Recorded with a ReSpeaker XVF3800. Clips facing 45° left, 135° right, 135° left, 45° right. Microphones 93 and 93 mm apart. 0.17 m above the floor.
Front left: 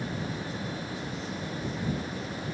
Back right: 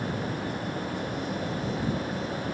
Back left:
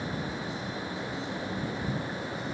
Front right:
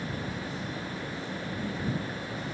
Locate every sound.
Only background noise.